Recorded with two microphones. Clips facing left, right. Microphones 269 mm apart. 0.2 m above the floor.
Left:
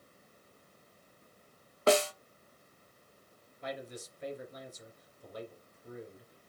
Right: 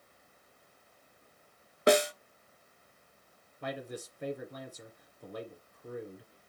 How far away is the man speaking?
About 2.5 m.